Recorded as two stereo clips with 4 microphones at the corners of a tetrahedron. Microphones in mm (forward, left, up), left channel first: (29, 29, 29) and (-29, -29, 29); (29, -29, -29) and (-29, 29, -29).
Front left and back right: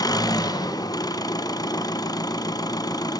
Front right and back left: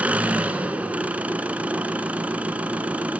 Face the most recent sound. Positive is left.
turn(degrees=65)